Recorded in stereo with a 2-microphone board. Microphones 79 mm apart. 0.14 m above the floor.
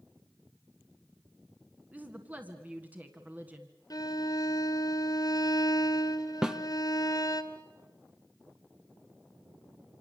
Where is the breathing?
I don't hear breathing.